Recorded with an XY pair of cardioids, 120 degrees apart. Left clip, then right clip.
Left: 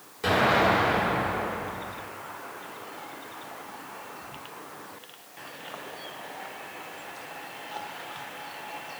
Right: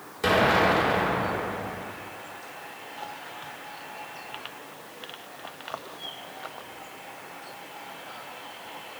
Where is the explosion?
35° right, 2.5 m.